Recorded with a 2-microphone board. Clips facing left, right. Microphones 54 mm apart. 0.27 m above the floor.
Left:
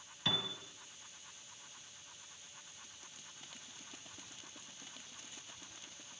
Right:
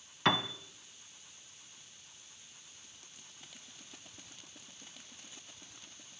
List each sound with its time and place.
0.2 s a piano: 55° right (ahead or behind), 1.1 m